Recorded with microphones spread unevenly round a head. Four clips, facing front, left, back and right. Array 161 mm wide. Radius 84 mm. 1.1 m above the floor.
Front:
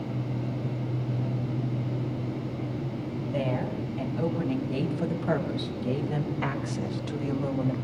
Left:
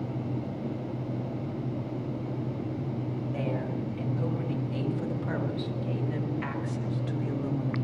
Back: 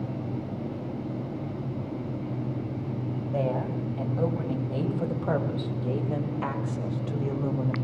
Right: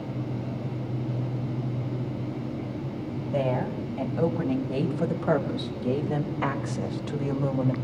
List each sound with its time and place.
3.3 s a woman speaking: 115° right, 8 m; by 7.8 s 95° right, 5 m